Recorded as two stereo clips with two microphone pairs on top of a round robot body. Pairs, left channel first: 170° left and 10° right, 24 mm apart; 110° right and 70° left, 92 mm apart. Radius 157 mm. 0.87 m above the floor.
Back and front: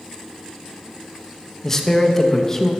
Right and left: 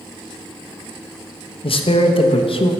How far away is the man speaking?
About 1.0 m.